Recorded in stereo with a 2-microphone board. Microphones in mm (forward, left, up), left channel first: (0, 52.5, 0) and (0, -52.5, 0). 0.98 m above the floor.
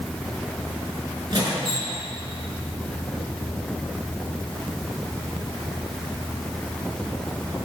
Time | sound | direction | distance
1.3 | a squeak | 45° right (ahead or behind) | 4 m